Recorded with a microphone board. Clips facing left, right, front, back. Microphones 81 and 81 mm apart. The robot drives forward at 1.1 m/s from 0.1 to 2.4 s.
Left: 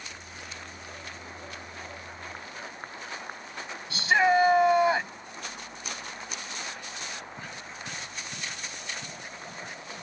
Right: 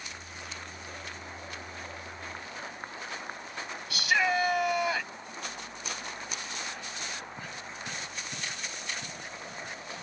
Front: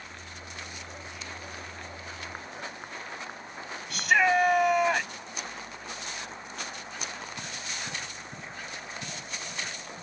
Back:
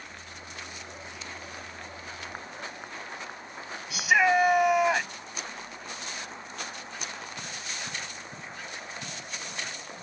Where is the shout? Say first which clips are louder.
Left 5 dB, back 1 dB; 100° left.